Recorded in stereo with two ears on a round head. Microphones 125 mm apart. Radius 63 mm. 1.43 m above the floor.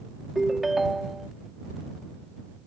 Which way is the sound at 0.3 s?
Centre (ahead or behind).